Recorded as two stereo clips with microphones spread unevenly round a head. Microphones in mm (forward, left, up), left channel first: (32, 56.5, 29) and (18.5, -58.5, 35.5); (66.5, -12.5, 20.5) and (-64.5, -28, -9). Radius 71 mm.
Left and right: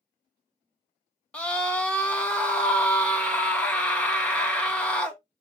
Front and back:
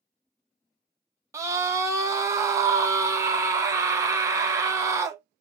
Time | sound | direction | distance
1.3 | a scream | 155° left | 0.8 m